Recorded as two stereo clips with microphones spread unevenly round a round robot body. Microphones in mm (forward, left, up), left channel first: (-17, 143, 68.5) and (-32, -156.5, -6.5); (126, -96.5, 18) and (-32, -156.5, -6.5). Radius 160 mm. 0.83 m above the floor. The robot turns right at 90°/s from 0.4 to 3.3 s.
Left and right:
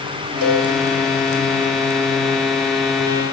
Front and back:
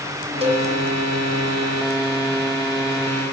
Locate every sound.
0.4 s a cowbell: 105° right, 7.5 m; by 0.7 s 85° right, 7.5 m